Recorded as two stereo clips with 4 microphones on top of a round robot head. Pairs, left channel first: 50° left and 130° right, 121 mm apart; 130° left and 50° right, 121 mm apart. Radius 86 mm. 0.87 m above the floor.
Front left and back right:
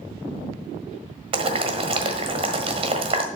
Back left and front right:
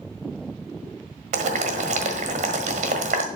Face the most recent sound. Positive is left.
turn(degrees=-85)